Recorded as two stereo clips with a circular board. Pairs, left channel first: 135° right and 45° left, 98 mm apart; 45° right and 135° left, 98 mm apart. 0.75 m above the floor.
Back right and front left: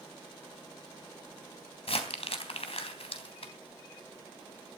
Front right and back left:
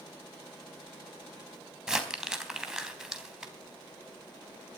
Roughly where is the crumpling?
Behind right.